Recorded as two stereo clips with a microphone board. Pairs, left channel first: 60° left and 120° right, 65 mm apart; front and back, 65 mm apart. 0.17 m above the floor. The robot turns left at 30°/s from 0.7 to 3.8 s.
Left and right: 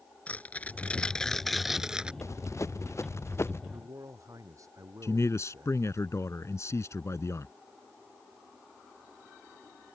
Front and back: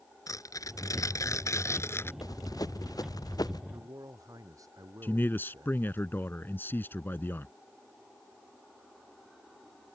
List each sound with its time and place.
0.3 s tearing paper: 5° right; by 2.1 s 45° right
2.2 s running footsteps: 20° left; by 3.6 s 10° left
3.7 s a man speaking: 150° right
5.0 s a man speaking: 45° left